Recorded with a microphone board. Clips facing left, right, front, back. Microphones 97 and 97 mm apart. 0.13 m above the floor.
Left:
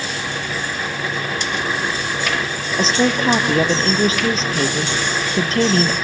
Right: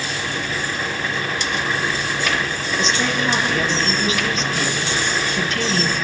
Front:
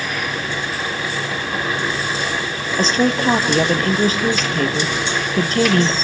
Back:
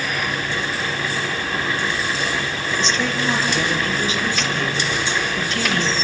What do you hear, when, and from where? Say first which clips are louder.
2.8 s a woman speaking: left 5 dB, front 7 dB; 40° left, 2.5 m